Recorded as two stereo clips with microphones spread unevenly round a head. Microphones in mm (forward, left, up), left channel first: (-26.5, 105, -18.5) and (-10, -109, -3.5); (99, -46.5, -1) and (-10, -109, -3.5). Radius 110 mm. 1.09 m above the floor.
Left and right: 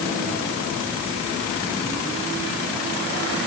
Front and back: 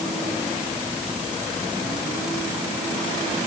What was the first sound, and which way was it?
Only background noise.